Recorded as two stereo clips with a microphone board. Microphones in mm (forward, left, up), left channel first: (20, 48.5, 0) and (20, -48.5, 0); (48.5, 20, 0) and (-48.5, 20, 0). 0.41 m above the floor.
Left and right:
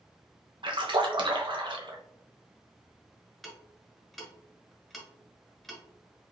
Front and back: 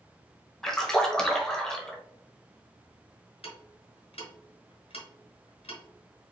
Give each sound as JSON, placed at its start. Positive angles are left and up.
{"t": 0.6, "sound": "a splash", "azimuth_deg": -80, "distance_m": 0.9}
{"t": 3.4, "sound": "ticking", "azimuth_deg": 5, "distance_m": 1.5}